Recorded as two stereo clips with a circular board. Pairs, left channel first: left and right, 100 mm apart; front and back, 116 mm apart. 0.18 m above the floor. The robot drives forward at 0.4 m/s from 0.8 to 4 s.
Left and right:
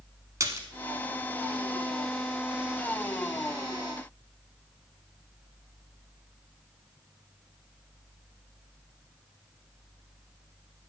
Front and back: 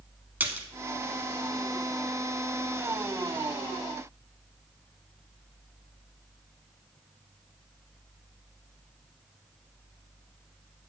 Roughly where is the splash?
Behind right.